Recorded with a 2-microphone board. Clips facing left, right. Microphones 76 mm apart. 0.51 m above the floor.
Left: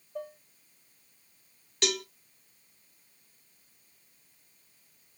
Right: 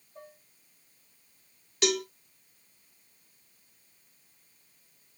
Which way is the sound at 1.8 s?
Centre (ahead or behind).